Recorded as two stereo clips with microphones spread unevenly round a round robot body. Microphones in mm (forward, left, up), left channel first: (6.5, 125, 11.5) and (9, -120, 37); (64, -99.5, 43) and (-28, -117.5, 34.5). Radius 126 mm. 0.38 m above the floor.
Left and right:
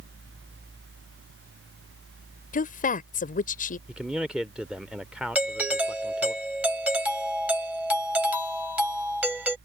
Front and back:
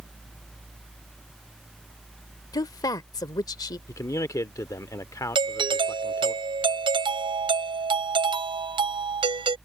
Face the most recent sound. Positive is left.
turn(degrees=-175)